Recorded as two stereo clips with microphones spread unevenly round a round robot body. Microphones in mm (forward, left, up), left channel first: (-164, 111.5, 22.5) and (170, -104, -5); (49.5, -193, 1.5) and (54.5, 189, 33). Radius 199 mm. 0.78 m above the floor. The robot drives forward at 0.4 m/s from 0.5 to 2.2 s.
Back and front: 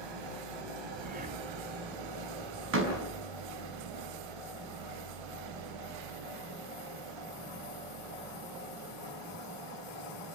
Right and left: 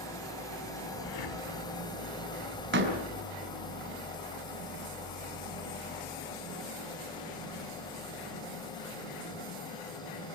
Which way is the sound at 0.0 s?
10° right.